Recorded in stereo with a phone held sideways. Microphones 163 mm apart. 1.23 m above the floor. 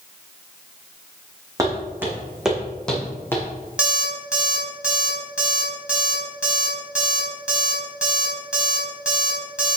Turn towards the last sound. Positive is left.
turn(degrees=-5)  # may be behind; listen again after turning